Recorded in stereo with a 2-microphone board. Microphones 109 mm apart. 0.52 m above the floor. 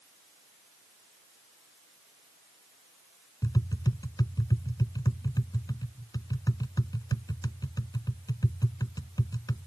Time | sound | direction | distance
3.4 | tapping | 35° left (ahead or behind) | ?